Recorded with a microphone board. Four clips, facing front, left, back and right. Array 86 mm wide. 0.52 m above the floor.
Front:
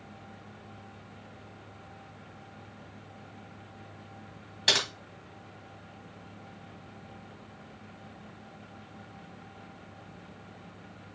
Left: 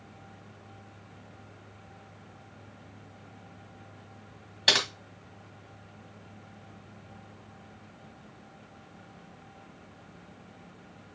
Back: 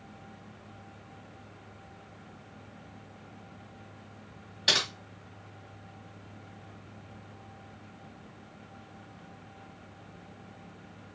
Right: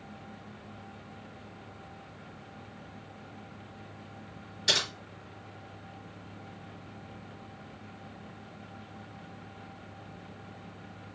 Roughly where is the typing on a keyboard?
Left.